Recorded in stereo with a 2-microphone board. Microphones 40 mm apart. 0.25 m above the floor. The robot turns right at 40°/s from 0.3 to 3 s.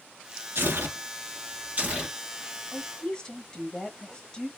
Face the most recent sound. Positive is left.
turn(degrees=20)  # may be behind; listen again after turning